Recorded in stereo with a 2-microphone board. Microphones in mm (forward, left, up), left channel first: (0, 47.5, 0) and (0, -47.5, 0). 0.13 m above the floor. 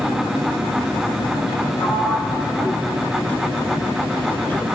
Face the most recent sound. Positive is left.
turn(degrees=20)  # may be behind; listen again after turning